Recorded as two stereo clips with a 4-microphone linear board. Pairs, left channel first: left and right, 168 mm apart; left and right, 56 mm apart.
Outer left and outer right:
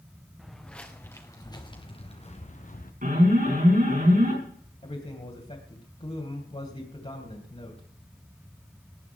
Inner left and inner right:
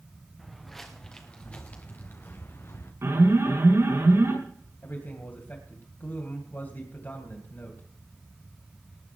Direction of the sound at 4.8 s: 40° left (ahead or behind).